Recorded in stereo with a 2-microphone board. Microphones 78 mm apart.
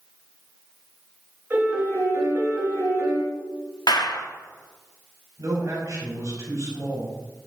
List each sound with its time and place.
1.5 s a piano: 25° right (ahead or behind), 3.5 m
3.9 s a clap: 75° left (ahead or behind), 0.7 m
5.4 s a man speaking: 50° right (ahead or behind), 3.5 m